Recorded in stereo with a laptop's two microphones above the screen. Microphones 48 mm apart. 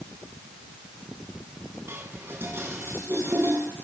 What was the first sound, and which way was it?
Dishes clattering, 60° right (ahead or behind).